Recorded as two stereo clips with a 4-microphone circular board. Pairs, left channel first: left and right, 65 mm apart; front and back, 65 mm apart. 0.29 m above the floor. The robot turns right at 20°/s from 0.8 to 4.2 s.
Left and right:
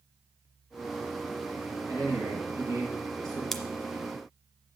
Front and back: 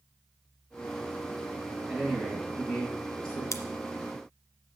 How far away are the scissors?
About 0.8 m.